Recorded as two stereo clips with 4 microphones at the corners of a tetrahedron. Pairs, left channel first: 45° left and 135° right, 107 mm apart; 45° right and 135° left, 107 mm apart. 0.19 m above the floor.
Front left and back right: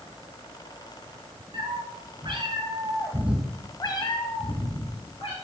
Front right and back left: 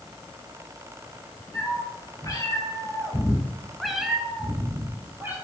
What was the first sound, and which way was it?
A cat meowing, 100° right.